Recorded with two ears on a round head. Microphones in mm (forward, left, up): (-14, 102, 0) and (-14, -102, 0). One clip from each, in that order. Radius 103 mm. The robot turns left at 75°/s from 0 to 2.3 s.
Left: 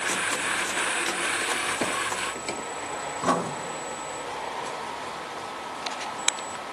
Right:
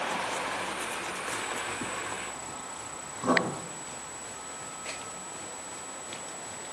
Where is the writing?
85° left, 1.5 m.